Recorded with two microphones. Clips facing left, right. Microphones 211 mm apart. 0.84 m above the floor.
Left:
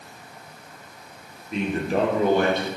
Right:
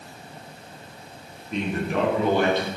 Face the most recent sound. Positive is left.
turn(degrees=50)  # may be behind; listen again after turning